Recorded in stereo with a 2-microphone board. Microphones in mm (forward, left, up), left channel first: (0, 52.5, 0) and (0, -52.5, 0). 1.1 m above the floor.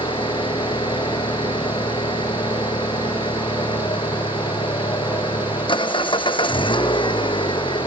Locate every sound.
0.0 s an engine running: 50° left (ahead or behind)